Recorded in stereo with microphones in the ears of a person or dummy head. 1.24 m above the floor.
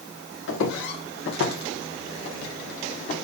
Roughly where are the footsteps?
Left.